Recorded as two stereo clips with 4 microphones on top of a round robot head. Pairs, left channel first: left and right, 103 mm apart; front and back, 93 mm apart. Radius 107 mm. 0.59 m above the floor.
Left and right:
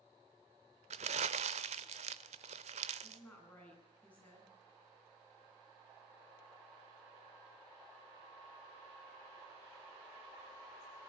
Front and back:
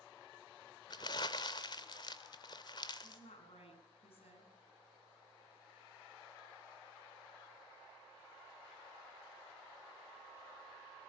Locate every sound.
0.9 s crumpling: 60° right, 0.5 m
3.0 s a woman speaking: 10° left, 8 m